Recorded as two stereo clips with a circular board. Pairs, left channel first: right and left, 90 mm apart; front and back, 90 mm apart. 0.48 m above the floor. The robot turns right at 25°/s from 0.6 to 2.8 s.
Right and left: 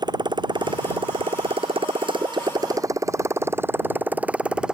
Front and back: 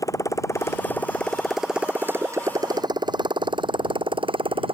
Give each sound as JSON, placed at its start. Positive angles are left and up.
{"t": 0.0, "sound": "a motorcycle", "azimuth_deg": 50}